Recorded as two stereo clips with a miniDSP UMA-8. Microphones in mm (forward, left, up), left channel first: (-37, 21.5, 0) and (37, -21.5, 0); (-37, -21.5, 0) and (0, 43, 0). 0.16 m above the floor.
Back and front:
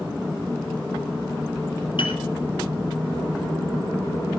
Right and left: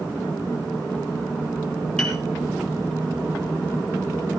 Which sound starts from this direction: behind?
A piano, at 2.0 s.